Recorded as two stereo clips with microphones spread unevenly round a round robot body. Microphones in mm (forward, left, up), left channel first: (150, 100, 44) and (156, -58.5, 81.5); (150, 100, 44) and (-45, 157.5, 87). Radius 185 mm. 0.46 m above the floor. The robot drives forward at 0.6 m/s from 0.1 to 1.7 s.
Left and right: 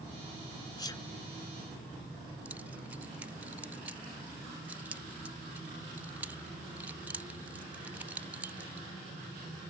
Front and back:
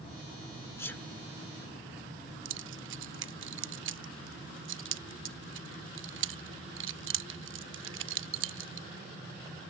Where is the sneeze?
45° left; by 1.1 s 55° left.